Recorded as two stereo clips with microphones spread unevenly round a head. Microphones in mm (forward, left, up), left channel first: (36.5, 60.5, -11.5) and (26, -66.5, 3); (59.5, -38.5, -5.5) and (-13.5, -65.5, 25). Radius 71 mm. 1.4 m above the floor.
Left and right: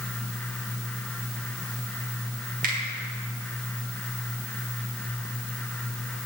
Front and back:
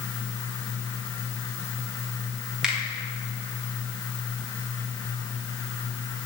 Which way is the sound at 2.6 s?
80° right.